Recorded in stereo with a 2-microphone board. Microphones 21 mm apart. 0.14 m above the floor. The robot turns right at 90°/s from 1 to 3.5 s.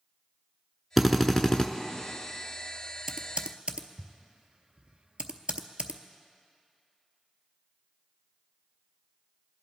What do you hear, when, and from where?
1.0 s a drill: straight ahead, 0.7 m; by 1.7 s 60° left, 0.7 m
3.1 s typing on a keyboard: 25° right (ahead or behind), 0.6 m; by 6.0 s 60° right (ahead or behind), 0.6 m